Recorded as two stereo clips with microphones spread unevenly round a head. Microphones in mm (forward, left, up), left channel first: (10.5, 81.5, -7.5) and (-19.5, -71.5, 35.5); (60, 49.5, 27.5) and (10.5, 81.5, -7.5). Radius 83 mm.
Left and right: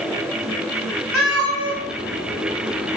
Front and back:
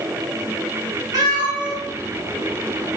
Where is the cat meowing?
155° right, 1.0 m; by 3.0 s 150° right, 1.9 m.